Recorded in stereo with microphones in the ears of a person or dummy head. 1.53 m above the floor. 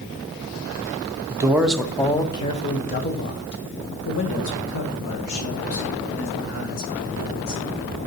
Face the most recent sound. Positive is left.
turn(degrees=75)  # may be behind; listen again after turning